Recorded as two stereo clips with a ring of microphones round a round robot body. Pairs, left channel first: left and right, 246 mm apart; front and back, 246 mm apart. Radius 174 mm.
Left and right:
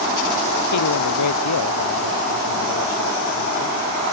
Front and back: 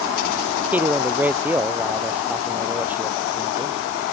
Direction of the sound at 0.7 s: 95° left.